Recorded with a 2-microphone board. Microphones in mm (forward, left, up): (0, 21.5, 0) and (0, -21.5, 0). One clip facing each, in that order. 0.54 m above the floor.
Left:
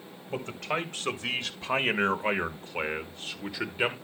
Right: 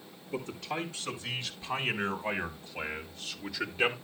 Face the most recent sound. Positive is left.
turn(degrees=15)  # may be behind; listen again after turning